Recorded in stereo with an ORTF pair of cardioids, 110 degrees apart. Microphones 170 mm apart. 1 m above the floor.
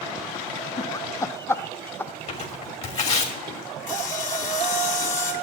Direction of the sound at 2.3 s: 40° left.